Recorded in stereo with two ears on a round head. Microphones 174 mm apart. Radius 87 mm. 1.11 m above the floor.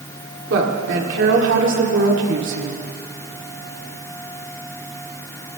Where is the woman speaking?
70° right (ahead or behind), 2.5 m.